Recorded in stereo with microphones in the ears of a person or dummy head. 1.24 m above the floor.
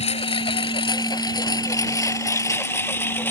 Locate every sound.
0.0 s a lawn mower: 30° left (ahead or behind); by 3.3 s 10° left (ahead or behind)